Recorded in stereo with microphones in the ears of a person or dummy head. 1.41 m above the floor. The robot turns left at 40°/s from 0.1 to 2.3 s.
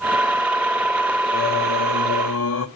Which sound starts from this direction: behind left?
Singing, at 1.3 s.